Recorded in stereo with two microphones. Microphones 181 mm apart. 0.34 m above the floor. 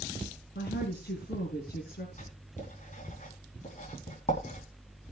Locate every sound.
0.6 s a woman speaking: 70° left (ahead or behind), 4 m
2.2 s writing: 45° left (ahead or behind), 3.5 m